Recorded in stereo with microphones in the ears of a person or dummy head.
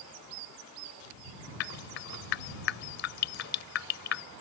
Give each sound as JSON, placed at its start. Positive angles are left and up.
{"t": 1.6, "sound": "dripping", "side_deg": 55}